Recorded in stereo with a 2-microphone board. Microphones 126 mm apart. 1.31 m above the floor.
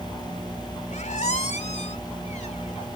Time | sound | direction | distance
0.9 | a squeak | 70° left (ahead or behind) | ?